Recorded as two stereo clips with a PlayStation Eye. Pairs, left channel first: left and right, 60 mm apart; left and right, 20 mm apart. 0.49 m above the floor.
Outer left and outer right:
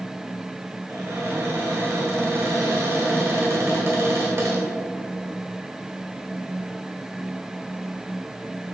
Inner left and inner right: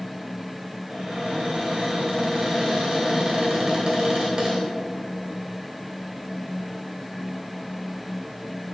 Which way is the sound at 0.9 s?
40° right (ahead or behind).